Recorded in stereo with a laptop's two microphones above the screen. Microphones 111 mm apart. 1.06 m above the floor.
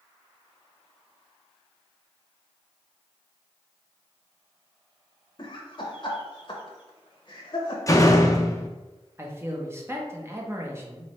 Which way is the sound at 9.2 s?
20° right (ahead or behind).